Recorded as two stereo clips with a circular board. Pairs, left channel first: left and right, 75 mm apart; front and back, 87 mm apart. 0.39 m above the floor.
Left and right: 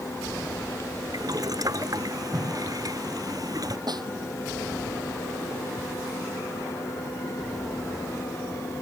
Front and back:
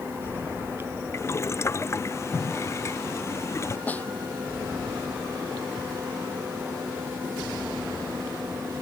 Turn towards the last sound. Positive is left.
turn(degrees=-70)